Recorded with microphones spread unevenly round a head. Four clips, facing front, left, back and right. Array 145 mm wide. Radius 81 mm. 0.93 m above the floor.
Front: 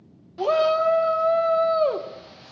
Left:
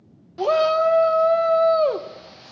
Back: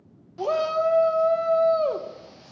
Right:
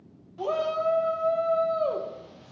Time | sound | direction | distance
0.4 | a shout | 55° left | 0.7 m